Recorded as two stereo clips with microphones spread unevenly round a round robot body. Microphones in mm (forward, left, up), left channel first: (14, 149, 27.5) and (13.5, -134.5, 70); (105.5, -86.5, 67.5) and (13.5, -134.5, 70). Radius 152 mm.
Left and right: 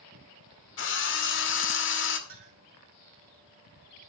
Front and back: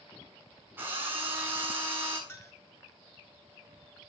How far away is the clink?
About 8.5 m.